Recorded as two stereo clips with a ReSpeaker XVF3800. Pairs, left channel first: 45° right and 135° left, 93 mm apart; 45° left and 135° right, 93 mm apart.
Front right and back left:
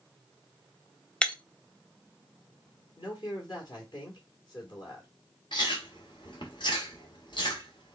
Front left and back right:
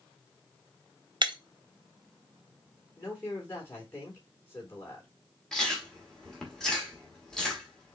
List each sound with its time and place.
1.2 s breaking glass: 125° right, 0.5 m
3.0 s a man speaking: 15° right, 2.0 m
5.5 s chewing: 35° right, 1.3 m